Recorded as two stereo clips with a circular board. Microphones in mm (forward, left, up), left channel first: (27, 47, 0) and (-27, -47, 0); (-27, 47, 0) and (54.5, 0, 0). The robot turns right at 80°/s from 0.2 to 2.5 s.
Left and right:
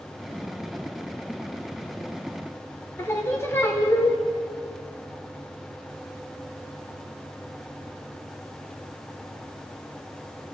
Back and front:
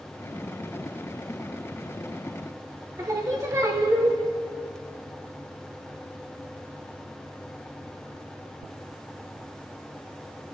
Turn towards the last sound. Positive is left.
turn(degrees=5)